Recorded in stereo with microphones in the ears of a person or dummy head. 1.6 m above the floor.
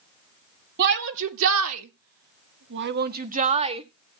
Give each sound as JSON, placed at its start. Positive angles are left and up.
{"t": 0.8, "sound": "a shout", "side_deg": -55, "distance_m": 1.4}